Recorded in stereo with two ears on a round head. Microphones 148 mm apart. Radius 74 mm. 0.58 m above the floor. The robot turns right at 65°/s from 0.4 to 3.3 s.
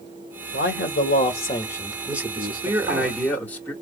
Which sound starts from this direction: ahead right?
A man speaking, at 2.4 s.